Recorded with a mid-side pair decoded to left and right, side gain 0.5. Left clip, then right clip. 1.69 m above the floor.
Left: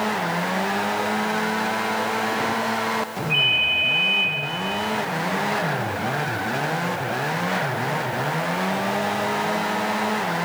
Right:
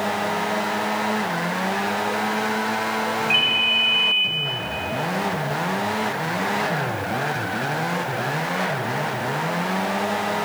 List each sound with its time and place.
3.3 s a ringtone: 65° right, 1.7 m